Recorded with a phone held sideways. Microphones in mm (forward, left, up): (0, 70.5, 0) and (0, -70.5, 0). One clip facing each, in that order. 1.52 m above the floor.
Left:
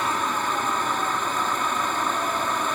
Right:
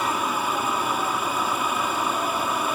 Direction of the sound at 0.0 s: 10° right (ahead or behind).